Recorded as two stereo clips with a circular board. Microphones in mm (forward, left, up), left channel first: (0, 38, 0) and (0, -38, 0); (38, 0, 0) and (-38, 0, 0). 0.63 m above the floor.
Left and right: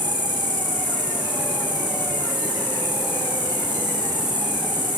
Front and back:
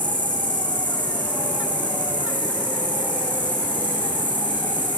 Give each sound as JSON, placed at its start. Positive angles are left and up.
{"t": 0.0, "sound": "an insect", "azimuth_deg": -70, "distance_m": 5.0}